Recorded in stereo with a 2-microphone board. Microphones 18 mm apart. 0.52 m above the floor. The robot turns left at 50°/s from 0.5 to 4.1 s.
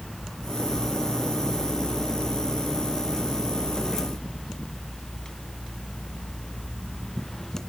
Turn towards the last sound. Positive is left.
No sound to turn to.